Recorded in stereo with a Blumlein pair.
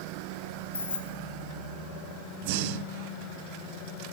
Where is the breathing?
50° right, 1.0 m.